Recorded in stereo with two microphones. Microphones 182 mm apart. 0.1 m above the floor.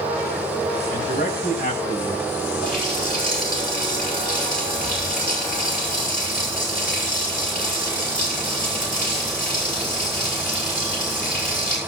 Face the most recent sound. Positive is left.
turn(degrees=55)  # may be behind; listen again after turning